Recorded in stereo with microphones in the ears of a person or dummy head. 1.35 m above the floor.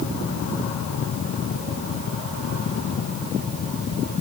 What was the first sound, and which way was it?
Only background noise.